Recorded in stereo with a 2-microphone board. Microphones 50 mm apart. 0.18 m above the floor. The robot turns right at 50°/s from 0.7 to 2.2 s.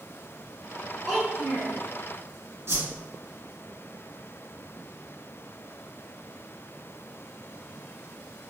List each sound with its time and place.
1.1 s a child speaking: straight behind, 1.5 m; by 1.8 s 140° right, 1.5 m
2.7 s a whoosh: 55° right (ahead or behind), 2.0 m